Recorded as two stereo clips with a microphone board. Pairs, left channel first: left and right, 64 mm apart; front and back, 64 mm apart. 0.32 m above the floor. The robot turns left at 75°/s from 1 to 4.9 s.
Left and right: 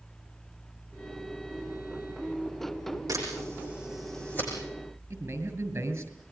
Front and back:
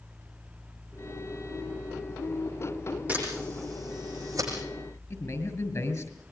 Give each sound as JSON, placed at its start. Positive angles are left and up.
{"t": 3.1, "sound": "a camera shutter", "azimuth_deg": -115, "distance_m": 8.5}
{"t": 5.1, "sound": "a man speaking", "azimuth_deg": -35, "distance_m": 5.5}